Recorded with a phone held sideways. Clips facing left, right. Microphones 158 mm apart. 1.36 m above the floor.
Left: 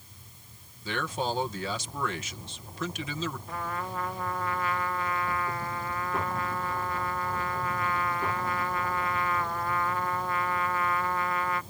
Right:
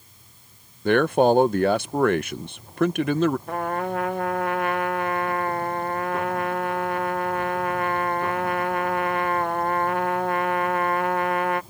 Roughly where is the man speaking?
Right.